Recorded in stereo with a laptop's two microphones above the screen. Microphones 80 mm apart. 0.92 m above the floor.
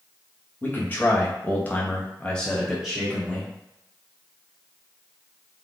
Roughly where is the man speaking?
Left.